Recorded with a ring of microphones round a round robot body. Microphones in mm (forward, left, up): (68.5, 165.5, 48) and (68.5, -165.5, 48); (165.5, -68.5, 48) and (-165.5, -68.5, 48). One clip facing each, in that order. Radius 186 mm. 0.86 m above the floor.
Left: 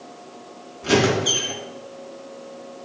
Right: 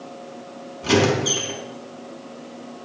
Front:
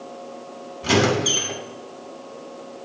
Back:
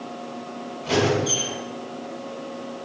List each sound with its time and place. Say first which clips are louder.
0.8 s a squeak: even, front 2 dB; 20° right, 3 m